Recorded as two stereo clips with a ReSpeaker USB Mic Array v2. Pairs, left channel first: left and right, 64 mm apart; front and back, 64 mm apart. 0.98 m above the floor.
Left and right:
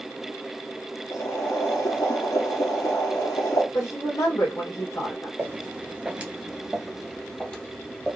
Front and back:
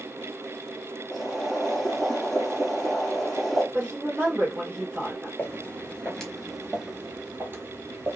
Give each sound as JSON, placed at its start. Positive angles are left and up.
{"t": 1.1, "sound": "boiling", "azimuth_deg": 90, "distance_m": 1.9}
{"t": 3.7, "sound": "a woman speaking", "azimuth_deg": 120, "distance_m": 2.5}
{"t": 5.4, "sound": "footsteps", "azimuth_deg": -50, "distance_m": 1.3}